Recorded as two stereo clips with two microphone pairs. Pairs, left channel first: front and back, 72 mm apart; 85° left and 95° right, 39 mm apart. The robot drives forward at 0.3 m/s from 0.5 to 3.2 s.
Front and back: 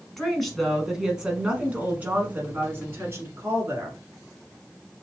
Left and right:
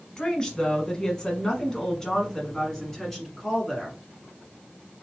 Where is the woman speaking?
85° left, 1.0 m; by 4.0 s 155° left, 1.3 m.